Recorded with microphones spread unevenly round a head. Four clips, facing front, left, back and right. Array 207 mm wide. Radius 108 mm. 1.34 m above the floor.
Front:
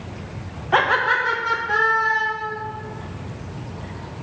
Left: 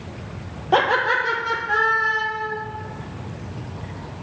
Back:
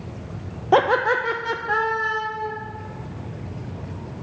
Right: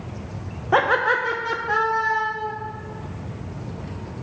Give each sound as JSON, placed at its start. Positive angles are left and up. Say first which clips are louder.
{"t": 0.7, "sound": "laughter", "louder": "even, back 1 dB", "azimuth_deg": 175, "distance_m": 0.6}